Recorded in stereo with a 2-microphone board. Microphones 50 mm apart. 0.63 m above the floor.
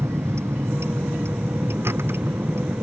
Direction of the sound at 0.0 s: 60° right (ahead or behind).